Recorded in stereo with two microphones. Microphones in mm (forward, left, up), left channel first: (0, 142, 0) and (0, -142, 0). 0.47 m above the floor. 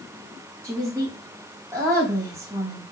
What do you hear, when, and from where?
0.6 s a woman speaking: 10° right (ahead or behind), 2.5 m